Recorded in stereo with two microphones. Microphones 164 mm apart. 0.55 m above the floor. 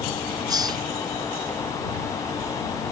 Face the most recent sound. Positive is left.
turn(degrees=-25)  # may be behind; listen again after turning